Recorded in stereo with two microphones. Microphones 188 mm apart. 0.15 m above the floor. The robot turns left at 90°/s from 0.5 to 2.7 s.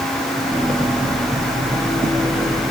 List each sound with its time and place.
Only background noise.